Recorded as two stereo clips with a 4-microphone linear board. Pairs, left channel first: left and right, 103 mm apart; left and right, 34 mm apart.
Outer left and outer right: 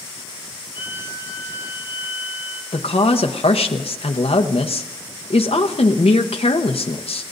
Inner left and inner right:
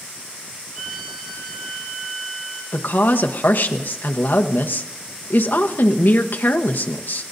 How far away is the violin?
About 6 m.